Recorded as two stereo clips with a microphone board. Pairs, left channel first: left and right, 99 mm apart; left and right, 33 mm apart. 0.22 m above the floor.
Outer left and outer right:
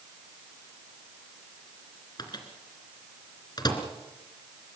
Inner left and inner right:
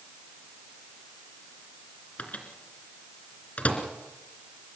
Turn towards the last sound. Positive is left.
turn(degrees=45)  # may be behind; listen again after turning